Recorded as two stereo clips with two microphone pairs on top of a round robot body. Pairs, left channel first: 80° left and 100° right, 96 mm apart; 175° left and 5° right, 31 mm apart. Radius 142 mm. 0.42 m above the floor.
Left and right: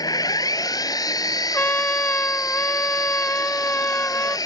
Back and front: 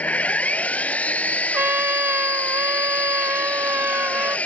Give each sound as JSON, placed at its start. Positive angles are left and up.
{"t": 0.0, "sound": "an engine running", "azimuth_deg": 130}
{"t": 1.5, "sound": "a trumpet", "azimuth_deg": 5}